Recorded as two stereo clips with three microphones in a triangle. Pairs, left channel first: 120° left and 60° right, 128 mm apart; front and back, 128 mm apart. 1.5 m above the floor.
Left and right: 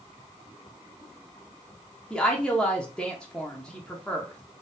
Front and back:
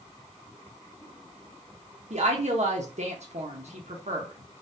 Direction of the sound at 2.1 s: 155° right.